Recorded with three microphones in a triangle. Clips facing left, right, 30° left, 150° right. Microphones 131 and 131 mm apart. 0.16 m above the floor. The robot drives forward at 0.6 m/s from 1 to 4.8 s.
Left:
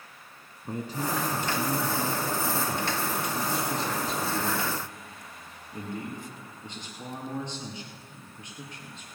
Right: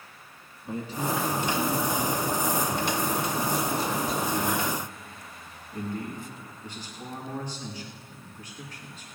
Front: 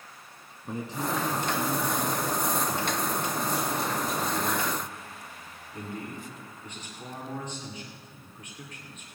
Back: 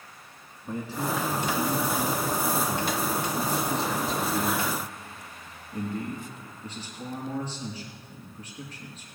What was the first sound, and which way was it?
A man speaking, 90° left.